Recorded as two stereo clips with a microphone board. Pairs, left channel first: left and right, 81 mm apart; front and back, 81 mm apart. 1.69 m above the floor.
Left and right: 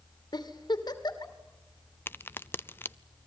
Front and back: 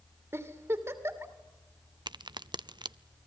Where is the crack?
155° left, 0.6 m.